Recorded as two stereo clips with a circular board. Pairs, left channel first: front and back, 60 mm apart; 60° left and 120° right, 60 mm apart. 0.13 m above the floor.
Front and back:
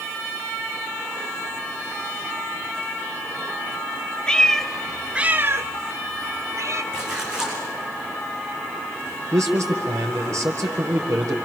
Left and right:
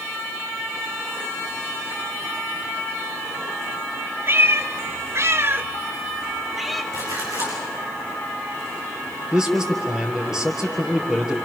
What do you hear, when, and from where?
4.3 s a cat meowing: 75° right, 1.2 m; by 6.8 s 150° left, 1.4 m
6.9 s a splash: 100° right, 6.5 m
9.3 s a man speaking: 160° left, 3.5 m